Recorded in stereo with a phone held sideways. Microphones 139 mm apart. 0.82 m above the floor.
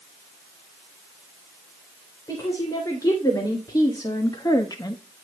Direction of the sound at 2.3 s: 25° left (ahead or behind).